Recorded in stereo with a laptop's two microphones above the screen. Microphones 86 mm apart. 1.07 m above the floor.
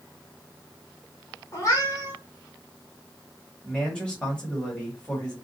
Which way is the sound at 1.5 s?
40° left (ahead or behind).